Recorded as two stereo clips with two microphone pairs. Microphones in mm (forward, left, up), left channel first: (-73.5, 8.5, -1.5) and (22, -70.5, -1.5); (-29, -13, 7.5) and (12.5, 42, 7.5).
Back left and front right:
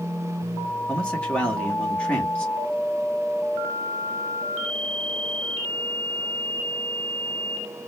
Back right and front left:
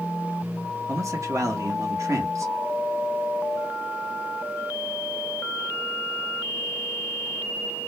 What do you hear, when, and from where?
0.9 s a man speaking: 65° left, 1.2 m